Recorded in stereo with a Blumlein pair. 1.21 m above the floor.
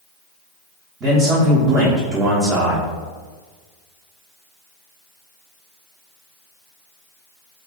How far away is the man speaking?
About 0.8 m.